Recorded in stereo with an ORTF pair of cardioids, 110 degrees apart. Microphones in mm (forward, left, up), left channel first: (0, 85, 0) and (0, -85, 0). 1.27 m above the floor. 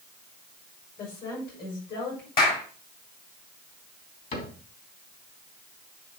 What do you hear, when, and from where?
1.0 s a woman speaking: 70° left, 6.5 m; by 2.3 s 65° left, 5.5 m
2.4 s a clap: 60° left, 4 m
4.3 s a cupboard door: 50° left, 3 m